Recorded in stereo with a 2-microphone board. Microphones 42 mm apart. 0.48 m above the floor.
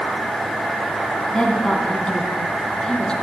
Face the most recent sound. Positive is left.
turn(degrees=20)  # may be behind; listen again after turning